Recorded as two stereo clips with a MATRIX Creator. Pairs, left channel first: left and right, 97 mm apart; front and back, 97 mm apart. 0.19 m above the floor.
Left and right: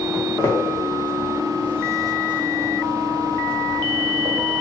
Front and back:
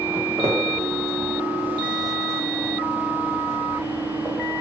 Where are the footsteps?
145° left, 1.2 m; by 4.3 s 75° right, 1.6 m.